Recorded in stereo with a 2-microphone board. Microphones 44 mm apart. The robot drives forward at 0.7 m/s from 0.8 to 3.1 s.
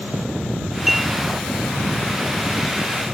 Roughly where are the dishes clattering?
Centre.